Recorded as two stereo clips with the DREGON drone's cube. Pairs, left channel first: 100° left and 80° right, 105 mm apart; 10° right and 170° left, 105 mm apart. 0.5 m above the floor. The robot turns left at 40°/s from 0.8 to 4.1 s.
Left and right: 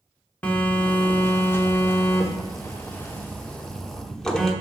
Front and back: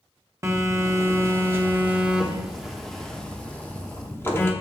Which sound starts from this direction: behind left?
A phone buzzing, at 0.4 s.